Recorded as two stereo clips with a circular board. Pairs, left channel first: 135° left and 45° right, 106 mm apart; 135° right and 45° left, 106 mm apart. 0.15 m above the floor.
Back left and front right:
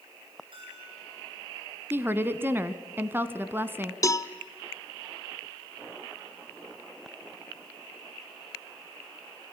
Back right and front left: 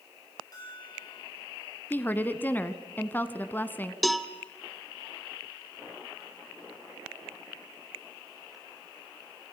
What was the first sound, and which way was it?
A bell, 85° right.